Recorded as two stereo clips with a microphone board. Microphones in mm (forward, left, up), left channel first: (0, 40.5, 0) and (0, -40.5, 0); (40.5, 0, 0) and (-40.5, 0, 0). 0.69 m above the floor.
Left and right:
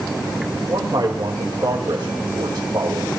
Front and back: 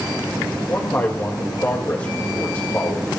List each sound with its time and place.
0.7 s a man speaking: 55° right, 3.5 m